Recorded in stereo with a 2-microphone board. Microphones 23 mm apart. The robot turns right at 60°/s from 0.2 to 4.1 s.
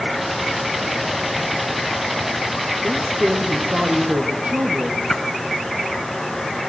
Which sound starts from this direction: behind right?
A woman speaking, at 2.8 s.